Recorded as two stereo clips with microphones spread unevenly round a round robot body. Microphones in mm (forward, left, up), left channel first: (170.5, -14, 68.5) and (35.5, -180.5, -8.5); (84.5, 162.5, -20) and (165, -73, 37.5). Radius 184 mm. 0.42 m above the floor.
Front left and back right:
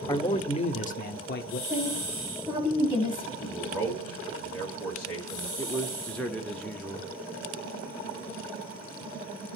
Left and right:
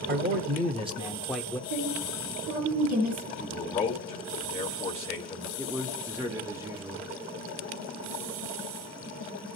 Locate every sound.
0.1 s a man speaking: 40° right, 1.0 m; by 1.6 s 75° left, 0.8 m
1.7 s a woman speaking: 70° right, 6 m
3.4 s a man speaking: 155° left, 1.6 m
5.6 s a man speaking: 170° right, 0.8 m